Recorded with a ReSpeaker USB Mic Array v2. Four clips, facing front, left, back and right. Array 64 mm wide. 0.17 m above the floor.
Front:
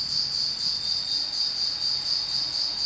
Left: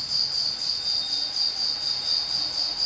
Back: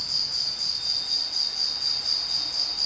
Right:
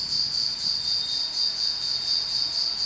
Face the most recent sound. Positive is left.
turn(degrees=125)